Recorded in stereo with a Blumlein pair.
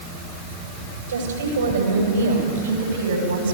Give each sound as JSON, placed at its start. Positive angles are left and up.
{"t": 1.1, "sound": "a woman speaking", "azimuth_deg": -70, "distance_m": 8.0}